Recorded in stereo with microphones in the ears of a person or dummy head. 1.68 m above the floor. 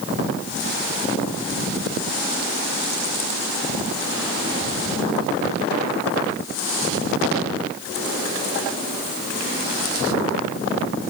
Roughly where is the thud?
No thud in this recording.